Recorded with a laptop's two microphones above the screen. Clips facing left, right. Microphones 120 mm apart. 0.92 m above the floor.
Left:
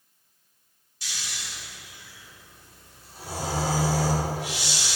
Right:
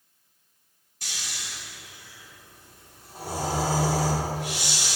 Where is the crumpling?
No crumpling in this recording.